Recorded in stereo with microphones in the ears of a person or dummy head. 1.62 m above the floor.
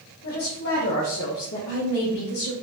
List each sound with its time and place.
0.2 s a woman speaking: 40° left (ahead or behind), 1.2 m; by 2.5 s 50° left (ahead or behind), 2 m